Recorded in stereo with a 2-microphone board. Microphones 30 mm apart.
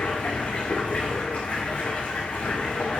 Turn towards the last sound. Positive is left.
turn(degrees=60)  # may be behind; listen again after turning